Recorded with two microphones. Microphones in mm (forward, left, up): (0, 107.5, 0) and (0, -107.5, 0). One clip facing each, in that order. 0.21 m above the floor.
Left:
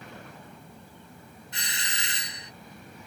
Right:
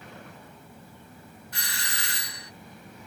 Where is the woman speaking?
I don't hear a woman speaking.